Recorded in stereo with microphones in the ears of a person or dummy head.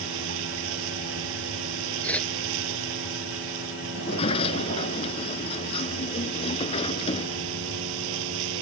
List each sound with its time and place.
0.0 s a vehicle: 70° right (ahead or behind)
2.0 s a whoosh: 10° left (ahead or behind)
3.9 s a sliding door: 30° left (ahead or behind)